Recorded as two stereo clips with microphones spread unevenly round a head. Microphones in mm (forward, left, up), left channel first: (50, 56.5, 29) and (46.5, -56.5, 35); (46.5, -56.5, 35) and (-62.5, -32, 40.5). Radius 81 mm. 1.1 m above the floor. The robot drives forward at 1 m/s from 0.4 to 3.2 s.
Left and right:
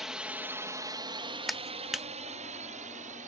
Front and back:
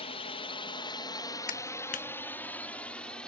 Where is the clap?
5° right.